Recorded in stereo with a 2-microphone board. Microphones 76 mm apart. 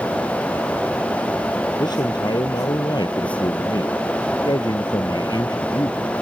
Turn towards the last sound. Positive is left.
turn(degrees=60)  # may be behind; listen again after turning